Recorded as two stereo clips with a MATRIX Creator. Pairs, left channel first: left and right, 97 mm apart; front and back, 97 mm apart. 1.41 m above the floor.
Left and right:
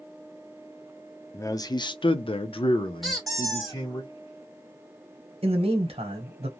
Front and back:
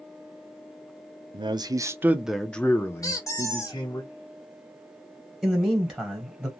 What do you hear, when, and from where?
1.3 s a man speaking: 150° left, 0.6 m; by 4.0 s 45° left, 1.1 m
3.0 s a squeak: 5° left, 1.2 m
5.4 s a man speaking: 100° right, 0.9 m